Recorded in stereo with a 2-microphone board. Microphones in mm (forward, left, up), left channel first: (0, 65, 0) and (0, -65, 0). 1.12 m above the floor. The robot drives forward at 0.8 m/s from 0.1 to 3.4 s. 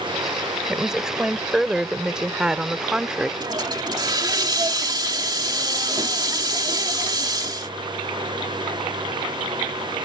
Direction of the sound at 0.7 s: 5° right (ahead or behind).